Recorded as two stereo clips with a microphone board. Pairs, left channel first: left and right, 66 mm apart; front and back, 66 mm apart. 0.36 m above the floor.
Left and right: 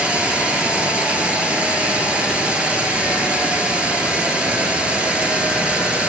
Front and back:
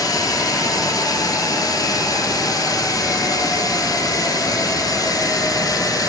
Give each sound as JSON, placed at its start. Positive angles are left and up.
{"t": 0.0, "sound": "running water", "azimuth_deg": -15, "distance_m": 1.2}